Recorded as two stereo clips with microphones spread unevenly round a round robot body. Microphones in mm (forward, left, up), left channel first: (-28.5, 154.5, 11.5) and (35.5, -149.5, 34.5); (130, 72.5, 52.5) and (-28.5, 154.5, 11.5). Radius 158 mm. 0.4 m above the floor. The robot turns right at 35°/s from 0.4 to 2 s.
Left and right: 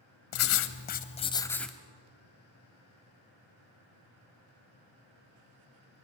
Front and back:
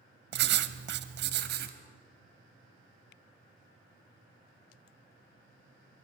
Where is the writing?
145° left, 0.9 m; by 1.8 s 165° right, 0.9 m.